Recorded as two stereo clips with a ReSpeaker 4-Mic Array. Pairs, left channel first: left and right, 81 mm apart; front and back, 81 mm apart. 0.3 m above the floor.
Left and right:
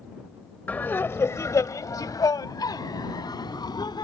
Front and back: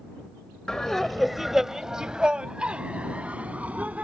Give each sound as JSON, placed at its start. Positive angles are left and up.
{"t": 0.7, "sound": "laughter", "azimuth_deg": 65}